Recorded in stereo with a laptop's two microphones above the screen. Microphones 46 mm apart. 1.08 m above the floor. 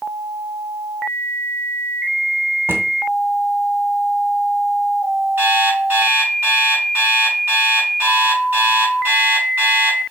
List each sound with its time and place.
2.7 s a drawer: 60° right (ahead or behind), 1.5 m
5.4 s an alarm clock: 45° right (ahead or behind), 5.5 m